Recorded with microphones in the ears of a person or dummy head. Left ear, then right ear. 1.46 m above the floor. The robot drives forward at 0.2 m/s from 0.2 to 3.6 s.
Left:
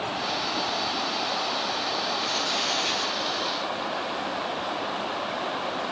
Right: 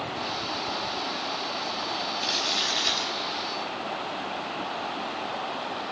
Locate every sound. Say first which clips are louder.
2.2 s crumpling: even; 40° right (ahead or behind), 5 m; by 3.2 s 45° right (ahead or behind), 4.5 m